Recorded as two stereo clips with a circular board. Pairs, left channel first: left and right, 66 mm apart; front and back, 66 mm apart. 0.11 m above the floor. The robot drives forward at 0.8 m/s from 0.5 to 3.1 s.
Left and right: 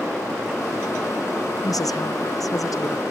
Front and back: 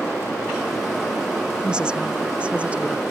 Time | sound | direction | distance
1.6 | a woman speaking | 105° left | ?